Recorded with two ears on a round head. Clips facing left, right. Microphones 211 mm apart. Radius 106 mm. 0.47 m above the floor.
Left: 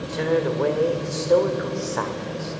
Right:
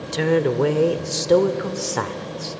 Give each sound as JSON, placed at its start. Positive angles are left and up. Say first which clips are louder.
{"t": 0.1, "sound": "a woman speaking", "louder": "right 3 dB", "side_deg": -45, "distance_m": 1.1}